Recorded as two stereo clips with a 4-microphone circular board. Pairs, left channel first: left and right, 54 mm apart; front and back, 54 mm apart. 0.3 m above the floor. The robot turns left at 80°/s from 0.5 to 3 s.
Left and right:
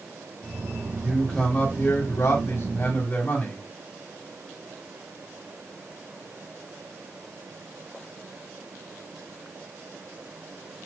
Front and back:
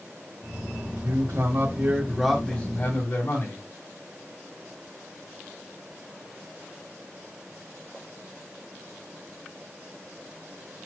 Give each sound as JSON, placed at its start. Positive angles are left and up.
{"t": 1.0, "sound": "a man speaking", "azimuth_deg": -170, "distance_m": 1.9}